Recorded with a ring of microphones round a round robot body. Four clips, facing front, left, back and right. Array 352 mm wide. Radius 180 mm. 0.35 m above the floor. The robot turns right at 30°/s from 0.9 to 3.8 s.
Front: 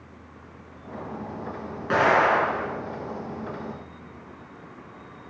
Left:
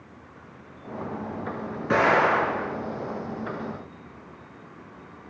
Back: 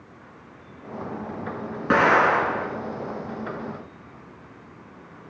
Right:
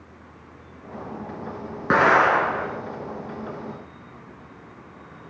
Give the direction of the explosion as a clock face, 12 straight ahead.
4 o'clock.